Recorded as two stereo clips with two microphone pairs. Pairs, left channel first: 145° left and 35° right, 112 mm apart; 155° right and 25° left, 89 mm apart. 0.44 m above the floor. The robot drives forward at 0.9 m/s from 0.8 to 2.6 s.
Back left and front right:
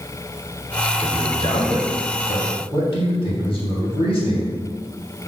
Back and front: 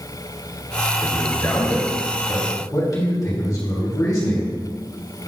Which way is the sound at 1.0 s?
150° left.